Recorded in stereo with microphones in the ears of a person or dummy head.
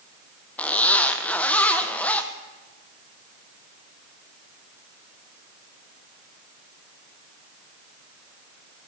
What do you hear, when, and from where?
0.6 s a zipper: 5° left (ahead or behind), 1.1 m